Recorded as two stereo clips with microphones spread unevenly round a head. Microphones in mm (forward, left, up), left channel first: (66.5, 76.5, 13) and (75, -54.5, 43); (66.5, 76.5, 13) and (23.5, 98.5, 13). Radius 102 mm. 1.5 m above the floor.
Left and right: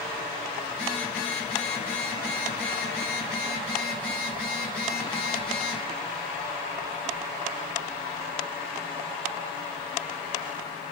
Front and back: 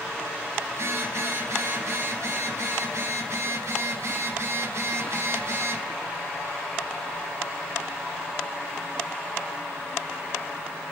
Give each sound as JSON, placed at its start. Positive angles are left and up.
{"t": 0.7, "sound": "a phone buzzing", "azimuth_deg": 135, "distance_m": 2.5}